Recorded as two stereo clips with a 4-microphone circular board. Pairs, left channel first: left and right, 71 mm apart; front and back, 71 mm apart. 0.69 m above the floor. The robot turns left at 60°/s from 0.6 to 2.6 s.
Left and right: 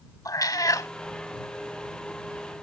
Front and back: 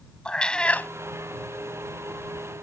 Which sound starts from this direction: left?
A cat meowing, at 0.2 s.